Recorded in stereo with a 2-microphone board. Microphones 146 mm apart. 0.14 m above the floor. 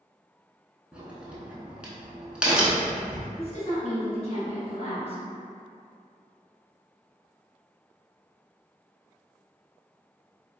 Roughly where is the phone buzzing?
No phone buzzing in this recording.